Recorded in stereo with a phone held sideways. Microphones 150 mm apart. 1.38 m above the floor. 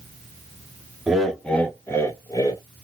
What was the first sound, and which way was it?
Laughter, 5° right (ahead or behind).